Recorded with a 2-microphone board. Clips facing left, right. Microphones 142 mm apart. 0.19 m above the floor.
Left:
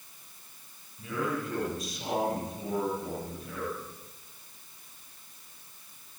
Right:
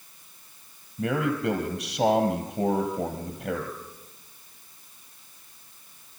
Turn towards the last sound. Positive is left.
turn(degrees=-70)  # may be behind; listen again after turning